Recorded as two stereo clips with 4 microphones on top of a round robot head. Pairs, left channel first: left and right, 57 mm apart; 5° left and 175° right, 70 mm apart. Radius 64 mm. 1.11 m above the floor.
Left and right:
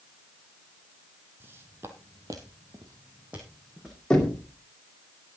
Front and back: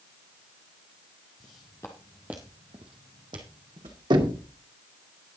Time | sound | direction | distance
1.4 | footsteps | 40° right | 1.9 m
4.1 | knocking | 170° left | 2 m